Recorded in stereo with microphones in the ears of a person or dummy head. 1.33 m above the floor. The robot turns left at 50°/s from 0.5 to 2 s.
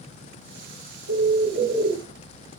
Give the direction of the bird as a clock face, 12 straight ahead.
4 o'clock.